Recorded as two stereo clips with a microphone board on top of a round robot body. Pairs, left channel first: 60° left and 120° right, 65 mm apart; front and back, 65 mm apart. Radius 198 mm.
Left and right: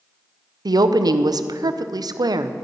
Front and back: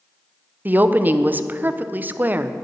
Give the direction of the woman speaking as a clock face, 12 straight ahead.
4 o'clock.